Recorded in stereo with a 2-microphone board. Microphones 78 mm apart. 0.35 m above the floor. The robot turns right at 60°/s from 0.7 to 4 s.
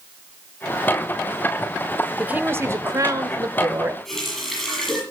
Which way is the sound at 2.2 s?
155° right.